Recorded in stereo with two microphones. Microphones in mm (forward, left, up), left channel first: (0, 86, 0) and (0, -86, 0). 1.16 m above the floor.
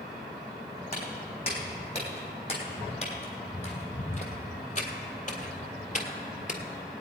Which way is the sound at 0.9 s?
35° left (ahead or behind).